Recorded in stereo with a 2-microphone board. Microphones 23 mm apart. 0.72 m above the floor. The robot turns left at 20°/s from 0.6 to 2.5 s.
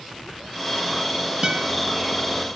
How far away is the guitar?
About 4.5 m.